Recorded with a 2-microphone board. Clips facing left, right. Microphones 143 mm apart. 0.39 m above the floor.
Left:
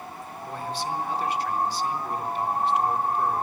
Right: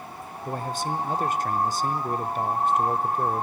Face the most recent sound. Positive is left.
turn(degrees=-45)  # may be behind; listen again after turning